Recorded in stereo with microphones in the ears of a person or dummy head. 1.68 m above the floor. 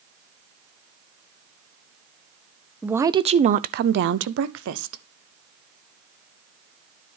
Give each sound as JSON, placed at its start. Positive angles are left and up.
{"t": 2.8, "sound": "a woman speaking", "side_deg": 0, "distance_m": 0.5}